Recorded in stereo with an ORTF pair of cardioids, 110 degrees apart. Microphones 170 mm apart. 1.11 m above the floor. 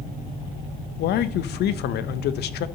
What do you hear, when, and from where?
1.0 s a man speaking: 65° left, 0.7 m